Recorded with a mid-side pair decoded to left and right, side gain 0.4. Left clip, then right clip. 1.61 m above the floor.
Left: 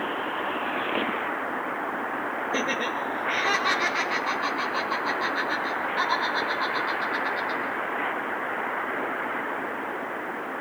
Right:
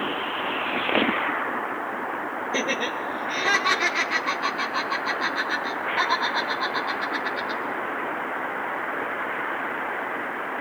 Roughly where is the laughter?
Ahead.